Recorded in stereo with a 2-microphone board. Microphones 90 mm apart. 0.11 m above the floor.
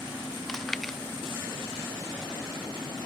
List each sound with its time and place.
0.5 s chewing: 5° left (ahead or behind)